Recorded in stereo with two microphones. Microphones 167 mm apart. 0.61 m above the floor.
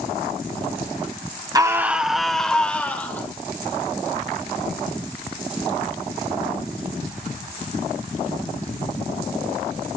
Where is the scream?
20° right (ahead or behind), 1.0 m; by 3.3 s 10° left (ahead or behind), 2.5 m.